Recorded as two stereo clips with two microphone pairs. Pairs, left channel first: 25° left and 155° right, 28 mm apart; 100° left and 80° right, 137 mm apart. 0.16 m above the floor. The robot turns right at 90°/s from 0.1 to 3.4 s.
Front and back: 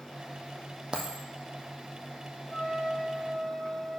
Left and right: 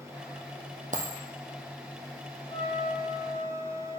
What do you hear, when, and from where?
0.9 s a dropped coin: 95° right, 1.1 m; by 1.2 s 75° right, 1.1 m
2.5 s a trumpet: 55° left, 2.5 m; by 4.0 s 135° left, 2.5 m